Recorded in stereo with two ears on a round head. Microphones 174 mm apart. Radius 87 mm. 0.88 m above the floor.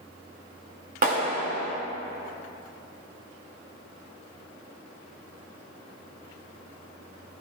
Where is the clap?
50° right (ahead or behind), 2.0 m.